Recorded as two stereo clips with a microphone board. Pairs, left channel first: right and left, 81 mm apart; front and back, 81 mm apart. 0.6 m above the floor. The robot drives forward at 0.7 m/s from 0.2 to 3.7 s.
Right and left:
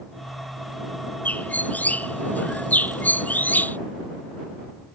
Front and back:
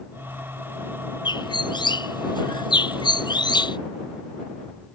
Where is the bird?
20° right; by 3.8 s 25° right.